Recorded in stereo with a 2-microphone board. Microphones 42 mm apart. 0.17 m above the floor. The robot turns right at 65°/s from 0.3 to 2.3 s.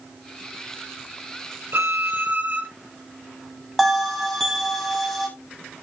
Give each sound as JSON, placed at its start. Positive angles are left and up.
{"t": 1.7, "sound": "a violin", "azimuth_deg": -75, "distance_m": 3.0}
{"t": 3.8, "sound": "a bell", "side_deg": 0, "distance_m": 3.5}